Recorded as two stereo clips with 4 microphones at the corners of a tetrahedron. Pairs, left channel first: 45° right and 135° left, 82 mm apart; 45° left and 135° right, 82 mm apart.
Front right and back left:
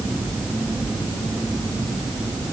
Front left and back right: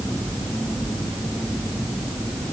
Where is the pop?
I don't hear a pop.